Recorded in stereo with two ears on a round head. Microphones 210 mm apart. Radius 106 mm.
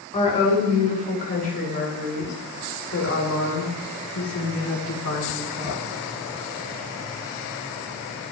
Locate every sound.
0.1 s a woman speaking: 25° left (ahead or behind), 7 m; by 5.8 s 85° left, 8 m